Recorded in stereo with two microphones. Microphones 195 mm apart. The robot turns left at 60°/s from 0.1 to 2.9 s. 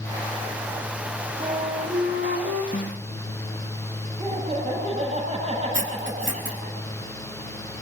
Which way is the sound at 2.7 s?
45° left (ahead or behind).